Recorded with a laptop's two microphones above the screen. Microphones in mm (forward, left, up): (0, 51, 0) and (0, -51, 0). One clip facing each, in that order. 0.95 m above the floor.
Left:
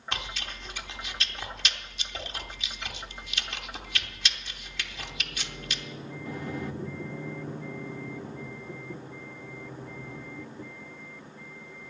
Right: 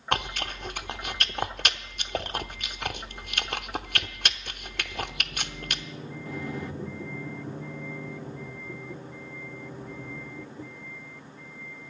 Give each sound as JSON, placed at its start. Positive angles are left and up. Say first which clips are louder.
{"t": 0.1, "sound": "chewing", "louder": "right 9 dB", "side_deg": -55, "distance_m": 0.8}